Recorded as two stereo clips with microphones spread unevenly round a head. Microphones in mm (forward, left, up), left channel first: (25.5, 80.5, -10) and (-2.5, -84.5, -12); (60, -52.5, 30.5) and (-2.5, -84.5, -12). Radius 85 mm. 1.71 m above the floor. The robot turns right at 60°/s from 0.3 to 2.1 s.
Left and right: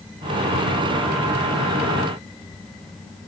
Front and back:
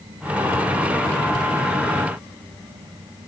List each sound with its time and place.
Only background noise.